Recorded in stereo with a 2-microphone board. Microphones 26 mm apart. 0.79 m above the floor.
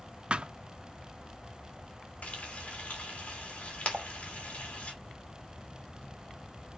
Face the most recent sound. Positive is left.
turn(degrees=-50)  # may be behind; listen again after turning